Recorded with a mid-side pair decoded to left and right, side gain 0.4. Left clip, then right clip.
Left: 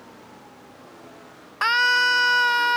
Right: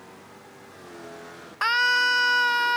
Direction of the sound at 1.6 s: 20° left.